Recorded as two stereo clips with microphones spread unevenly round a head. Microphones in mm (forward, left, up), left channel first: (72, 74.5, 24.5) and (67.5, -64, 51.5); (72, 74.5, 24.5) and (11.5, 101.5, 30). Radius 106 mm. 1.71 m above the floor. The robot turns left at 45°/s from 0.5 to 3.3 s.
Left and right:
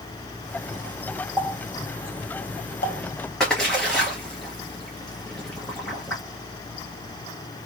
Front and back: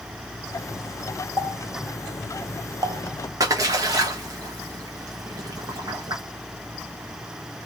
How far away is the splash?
About 1.1 m.